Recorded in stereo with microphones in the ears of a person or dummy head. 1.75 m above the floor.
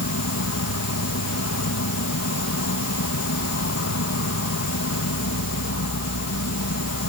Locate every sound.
0.0 s an insect: 80° left